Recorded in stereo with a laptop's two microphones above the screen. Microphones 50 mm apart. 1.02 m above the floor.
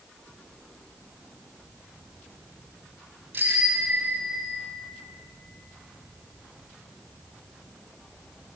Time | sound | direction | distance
3.3 | a bicycle bell | 40° right (ahead or behind) | 4 m